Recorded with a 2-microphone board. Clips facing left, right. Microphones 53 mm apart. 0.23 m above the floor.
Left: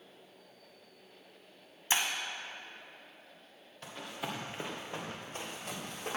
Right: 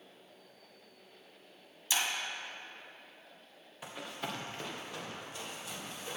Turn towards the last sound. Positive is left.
turn(degrees=60)  # may be behind; listen again after turning